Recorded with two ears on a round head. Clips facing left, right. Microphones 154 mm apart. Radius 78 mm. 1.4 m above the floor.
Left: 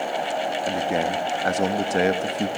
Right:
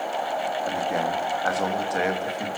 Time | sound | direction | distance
0.6 | a man speaking | 25° left (ahead or behind) | 2.5 m